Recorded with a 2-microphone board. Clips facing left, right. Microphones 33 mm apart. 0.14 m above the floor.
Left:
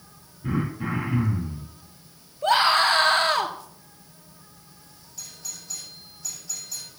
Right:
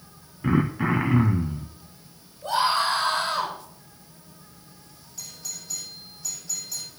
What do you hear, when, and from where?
0.4 s throat clearing: 65° right (ahead or behind), 3 m
2.4 s a scream: 60° left (ahead or behind), 2.5 m
5.2 s a doorbell: 5° right (ahead or behind), 8 m